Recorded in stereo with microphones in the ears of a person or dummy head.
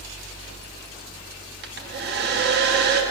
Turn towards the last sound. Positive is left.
turn(degrees=-50)  # may be behind; listen again after turning